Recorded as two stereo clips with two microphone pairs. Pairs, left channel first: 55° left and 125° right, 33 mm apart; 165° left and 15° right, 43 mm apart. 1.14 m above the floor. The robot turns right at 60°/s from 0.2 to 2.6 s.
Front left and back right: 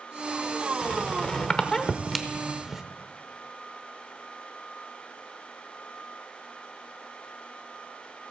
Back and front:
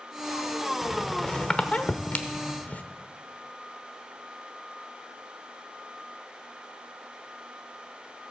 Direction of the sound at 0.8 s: 60° left.